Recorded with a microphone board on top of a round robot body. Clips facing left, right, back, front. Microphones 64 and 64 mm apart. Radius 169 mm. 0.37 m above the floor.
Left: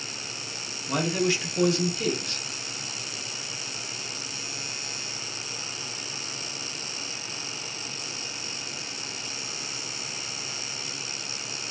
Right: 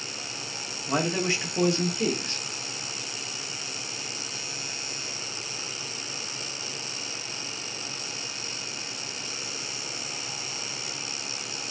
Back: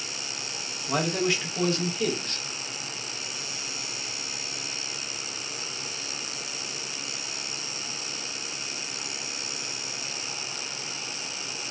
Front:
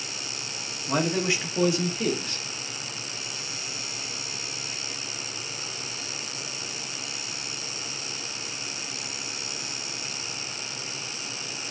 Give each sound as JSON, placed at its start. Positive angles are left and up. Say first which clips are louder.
{"t": 0.9, "sound": "a man speaking", "louder": "left 1 dB, front 1 dB", "azimuth_deg": -60, "distance_m": 1.1}